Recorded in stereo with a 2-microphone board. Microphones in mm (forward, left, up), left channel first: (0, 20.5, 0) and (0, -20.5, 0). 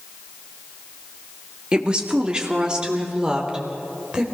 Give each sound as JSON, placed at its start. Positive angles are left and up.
{"t": 1.7, "sound": "a woman speaking", "side_deg": -20, "distance_m": 1.5}